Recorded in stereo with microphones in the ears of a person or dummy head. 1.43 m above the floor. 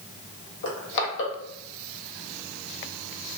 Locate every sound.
0.6 s crushing: 70° left (ahead or behind), 0.9 m